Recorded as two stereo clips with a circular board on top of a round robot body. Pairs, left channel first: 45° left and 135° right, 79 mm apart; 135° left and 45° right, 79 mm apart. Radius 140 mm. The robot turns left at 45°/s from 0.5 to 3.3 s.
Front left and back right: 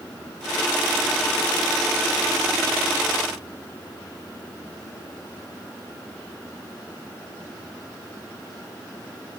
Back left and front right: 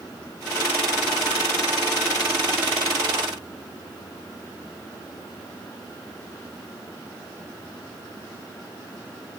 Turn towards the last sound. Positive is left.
No sound to turn to.